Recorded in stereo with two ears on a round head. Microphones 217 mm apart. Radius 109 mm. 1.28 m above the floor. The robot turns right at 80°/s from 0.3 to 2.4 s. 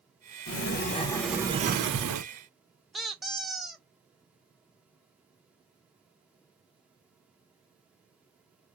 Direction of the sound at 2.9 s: Centre (ahead or behind).